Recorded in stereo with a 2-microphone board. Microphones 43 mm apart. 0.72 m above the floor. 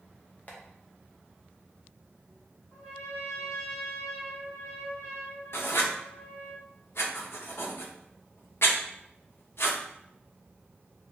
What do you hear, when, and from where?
0.5 s tapping: 40° left (ahead or behind), 0.8 m
2.7 s a trumpet: 50° left (ahead or behind), 2.0 m
5.5 s writing: 65° left (ahead or behind), 0.6 m